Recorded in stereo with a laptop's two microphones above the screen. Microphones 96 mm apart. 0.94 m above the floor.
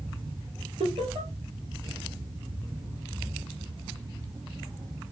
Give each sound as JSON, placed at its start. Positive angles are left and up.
{"t": 0.8, "sound": "laughter", "side_deg": -70, "distance_m": 2.0}